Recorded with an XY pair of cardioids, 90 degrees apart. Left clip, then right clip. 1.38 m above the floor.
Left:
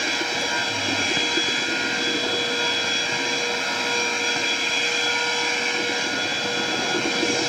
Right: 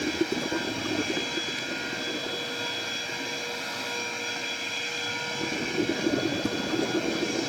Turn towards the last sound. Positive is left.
turn(degrees=65)